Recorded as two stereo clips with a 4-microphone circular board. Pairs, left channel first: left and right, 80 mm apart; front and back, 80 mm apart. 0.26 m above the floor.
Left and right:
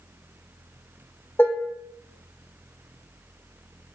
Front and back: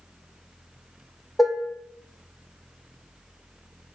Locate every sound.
1.4 s dishes clattering: 85° left, 0.7 m